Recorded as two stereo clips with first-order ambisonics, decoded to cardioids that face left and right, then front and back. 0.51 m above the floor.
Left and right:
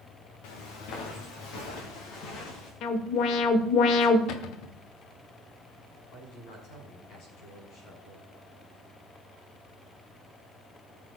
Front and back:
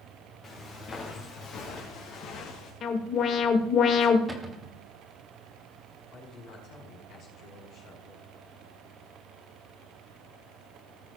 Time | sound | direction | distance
0.4 | footsteps | 70° left | 3 m
2.8 | an alarm | 50° left | 1.2 m
4.3 | a cupboard door | 100° left | 1.3 m
6.1 | a man speaking | 45° left | 5 m